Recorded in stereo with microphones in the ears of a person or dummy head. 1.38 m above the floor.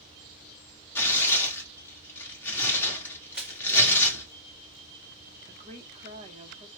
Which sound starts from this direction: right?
A woman speaking, at 5.5 s.